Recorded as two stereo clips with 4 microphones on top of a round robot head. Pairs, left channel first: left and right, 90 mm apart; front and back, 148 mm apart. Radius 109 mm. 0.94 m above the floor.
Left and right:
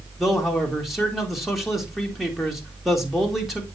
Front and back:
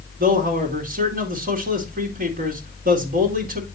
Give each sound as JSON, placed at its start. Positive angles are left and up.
{"t": 0.2, "sound": "a man speaking", "azimuth_deg": 180, "distance_m": 2.5}